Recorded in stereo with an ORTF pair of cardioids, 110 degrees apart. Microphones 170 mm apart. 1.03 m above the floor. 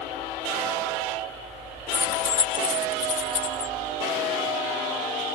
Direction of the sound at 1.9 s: 15° left.